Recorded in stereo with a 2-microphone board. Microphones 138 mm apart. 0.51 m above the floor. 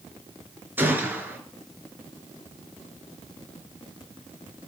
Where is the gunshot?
15° right (ahead or behind), 4 m.